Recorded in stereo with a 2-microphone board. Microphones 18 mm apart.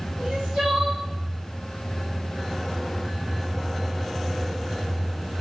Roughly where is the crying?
Right.